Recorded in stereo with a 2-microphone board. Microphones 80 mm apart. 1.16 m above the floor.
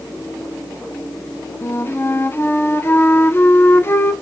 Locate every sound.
1.6 s a flute: 30° left (ahead or behind), 0.8 m